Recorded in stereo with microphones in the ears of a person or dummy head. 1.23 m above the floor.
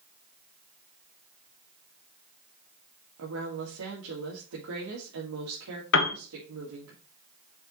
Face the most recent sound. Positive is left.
turn(degrees=60)  # may be behind; listen again after turning